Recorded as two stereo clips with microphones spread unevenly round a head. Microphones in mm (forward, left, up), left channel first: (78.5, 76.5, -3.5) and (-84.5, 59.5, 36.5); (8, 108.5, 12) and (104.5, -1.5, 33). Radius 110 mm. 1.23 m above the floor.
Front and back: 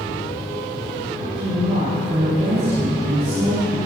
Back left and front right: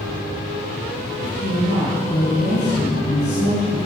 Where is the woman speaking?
145° left, 5.5 m.